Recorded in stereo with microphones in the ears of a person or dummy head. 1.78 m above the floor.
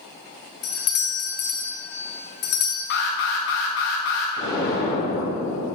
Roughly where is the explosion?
Left.